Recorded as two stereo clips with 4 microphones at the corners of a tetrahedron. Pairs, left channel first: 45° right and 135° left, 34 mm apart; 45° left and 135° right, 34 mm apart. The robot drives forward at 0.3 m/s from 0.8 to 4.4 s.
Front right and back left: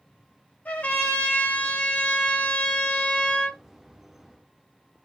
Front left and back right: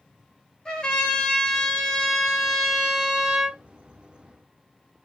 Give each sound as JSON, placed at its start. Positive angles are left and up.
{"t": 0.7, "sound": "a trumpet", "azimuth_deg": -20, "distance_m": 1.0}